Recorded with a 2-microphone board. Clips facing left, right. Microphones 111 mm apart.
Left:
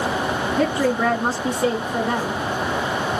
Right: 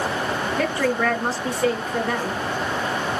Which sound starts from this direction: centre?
A woman speaking, at 0.6 s.